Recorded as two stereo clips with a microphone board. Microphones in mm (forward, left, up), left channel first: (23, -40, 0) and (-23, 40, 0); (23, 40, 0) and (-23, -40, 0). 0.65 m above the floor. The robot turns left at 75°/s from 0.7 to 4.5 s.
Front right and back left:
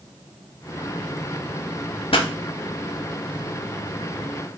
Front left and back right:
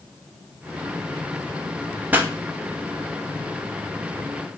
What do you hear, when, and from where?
2.1 s a pop: 50° right, 0.5 m; by 2.3 s 60° right, 0.5 m